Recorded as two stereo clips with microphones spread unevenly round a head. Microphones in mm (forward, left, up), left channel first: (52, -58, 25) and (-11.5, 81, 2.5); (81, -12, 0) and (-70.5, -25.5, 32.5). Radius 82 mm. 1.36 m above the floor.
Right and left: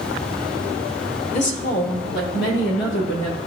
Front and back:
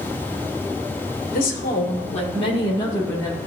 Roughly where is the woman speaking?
Ahead.